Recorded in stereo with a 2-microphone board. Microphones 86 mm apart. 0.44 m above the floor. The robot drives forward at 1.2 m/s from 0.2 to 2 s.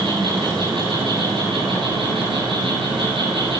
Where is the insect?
65° right (ahead or behind), 8 m; by 3.6 s 80° right, 7.5 m.